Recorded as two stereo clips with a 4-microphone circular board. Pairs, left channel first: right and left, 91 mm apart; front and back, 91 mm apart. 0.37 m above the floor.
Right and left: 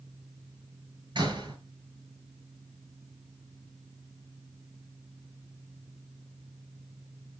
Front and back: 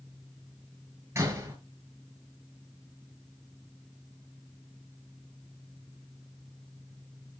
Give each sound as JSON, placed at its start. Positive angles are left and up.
{"t": 1.1, "sound": "a door slam", "azimuth_deg": 120, "distance_m": 5.5}